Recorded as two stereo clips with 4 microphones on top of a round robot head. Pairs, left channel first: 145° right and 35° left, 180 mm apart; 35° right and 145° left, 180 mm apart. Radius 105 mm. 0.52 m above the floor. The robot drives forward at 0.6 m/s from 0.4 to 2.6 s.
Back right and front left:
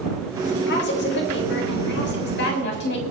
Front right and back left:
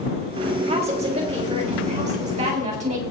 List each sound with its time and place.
0.7 s a woman speaking: 160° right, 3.5 m; by 3.0 s 165° right, 5 m